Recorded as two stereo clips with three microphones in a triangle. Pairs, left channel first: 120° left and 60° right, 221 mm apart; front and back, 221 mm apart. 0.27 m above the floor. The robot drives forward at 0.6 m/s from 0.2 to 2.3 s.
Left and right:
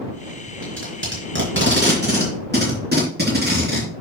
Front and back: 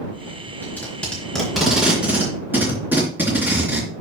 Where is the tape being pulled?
80° right, 3.5 m; by 3.9 s 100° right, 3.5 m.